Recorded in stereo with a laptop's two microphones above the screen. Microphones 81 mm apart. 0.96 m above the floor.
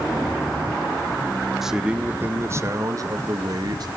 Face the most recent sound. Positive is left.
turn(degrees=-55)  # may be behind; listen again after turning